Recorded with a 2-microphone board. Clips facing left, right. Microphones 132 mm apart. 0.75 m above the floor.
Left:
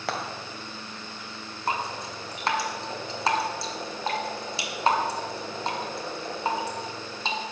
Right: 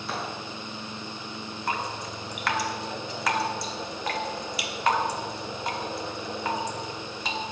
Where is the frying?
80° left, 1.9 m.